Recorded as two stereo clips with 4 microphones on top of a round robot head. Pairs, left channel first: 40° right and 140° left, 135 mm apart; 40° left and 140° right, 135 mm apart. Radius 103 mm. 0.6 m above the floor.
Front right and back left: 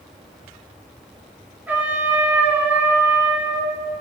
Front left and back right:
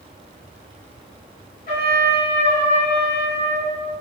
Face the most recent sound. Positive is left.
turn(degrees=60)